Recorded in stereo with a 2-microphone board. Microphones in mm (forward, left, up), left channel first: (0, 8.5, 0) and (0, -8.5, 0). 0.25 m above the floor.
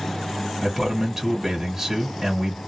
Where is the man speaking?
20° right (ahead or behind), 2.0 m.